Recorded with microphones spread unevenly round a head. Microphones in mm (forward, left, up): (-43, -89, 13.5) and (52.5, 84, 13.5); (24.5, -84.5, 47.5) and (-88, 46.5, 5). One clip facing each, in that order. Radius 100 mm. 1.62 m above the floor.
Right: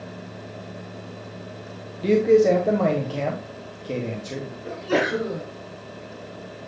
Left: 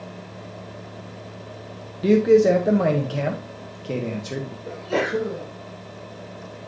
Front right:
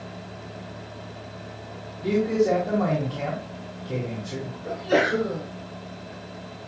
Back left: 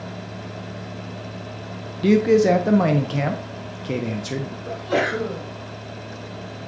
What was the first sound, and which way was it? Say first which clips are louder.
A man speaking: left 1 dB, back left 6 dB; 140° left.